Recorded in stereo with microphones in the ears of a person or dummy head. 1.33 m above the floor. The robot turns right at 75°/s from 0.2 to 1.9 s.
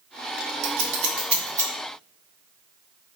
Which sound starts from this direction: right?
Scissors, at 0.6 s.